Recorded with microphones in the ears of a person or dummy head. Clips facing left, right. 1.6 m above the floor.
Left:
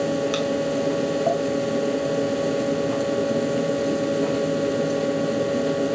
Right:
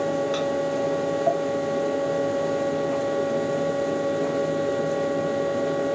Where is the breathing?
No breathing in this recording.